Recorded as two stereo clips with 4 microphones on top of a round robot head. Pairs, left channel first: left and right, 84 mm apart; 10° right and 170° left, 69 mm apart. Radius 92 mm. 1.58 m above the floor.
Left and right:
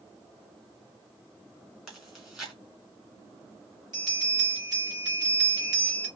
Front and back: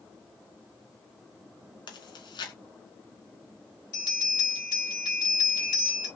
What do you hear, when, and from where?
1.9 s chewing: 5° right, 1.9 m
3.9 s a bell: 40° right, 2.5 m